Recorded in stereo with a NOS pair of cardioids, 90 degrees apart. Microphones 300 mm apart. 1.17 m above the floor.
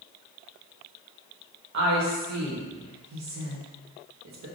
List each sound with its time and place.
1.7 s a woman speaking: 65° right, 1.1 m